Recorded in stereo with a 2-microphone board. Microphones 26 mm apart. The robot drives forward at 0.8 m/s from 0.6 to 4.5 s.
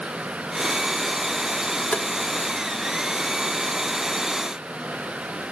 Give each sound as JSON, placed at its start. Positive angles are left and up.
{"t": 1.9, "sound": "tapping", "side_deg": 55, "distance_m": 0.8}